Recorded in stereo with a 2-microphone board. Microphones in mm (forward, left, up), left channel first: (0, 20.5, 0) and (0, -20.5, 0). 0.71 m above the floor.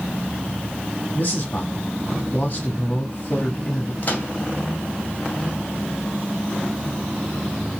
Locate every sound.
1.1 s a man speaking: 40° left (ahead or behind), 1.5 m
4.0 s a microwave: 40° left (ahead or behind), 1.7 m